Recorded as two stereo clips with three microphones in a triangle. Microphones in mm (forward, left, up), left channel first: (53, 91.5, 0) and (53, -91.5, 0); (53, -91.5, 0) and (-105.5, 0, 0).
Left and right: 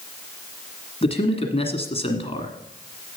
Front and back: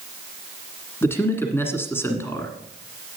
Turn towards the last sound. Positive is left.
turn(degrees=45)